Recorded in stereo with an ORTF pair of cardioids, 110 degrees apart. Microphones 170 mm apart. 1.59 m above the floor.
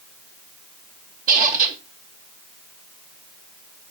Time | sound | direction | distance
1.3 | a squeak | 55° right | 1.7 m